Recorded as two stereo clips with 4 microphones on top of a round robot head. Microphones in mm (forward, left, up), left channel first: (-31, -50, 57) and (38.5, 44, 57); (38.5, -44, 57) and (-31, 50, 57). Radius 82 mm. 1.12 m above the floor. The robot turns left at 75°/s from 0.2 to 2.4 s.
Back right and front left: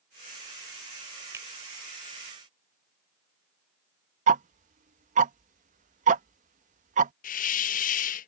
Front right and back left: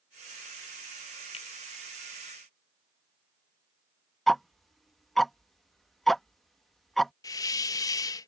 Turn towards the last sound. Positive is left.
turn(degrees=-115)